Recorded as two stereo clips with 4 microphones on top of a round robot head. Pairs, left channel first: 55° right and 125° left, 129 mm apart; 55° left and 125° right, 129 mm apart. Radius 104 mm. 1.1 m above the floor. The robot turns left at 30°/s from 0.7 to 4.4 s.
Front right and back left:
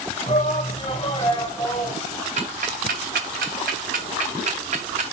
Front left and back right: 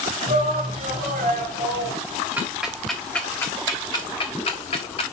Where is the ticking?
160° left, 0.7 m; by 5.0 s 95° left, 0.7 m.